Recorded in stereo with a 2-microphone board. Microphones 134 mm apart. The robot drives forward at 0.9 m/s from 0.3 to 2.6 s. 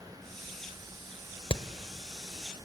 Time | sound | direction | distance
1.5 | hammering | 40° left (ahead or behind) | 1.2 m